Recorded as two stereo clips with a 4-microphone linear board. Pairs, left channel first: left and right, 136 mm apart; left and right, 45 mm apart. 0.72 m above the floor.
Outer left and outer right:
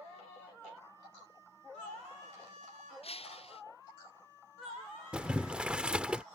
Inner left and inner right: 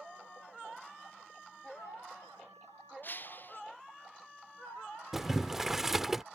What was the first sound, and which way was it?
Breaking glass, 45° left (ahead or behind).